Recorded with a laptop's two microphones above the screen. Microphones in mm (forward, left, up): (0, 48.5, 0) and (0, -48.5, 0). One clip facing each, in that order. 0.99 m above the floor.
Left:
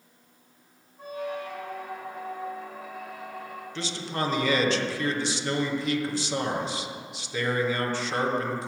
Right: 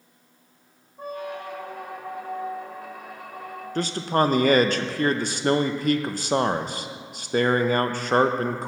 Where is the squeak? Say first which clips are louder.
Even; 60° right (ahead or behind), 1.0 m.